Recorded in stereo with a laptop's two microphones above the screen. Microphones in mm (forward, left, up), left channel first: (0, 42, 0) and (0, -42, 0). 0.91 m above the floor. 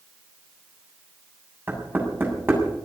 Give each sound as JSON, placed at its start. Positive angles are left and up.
{"t": 1.7, "sound": "knocking", "side_deg": -25, "distance_m": 7.0}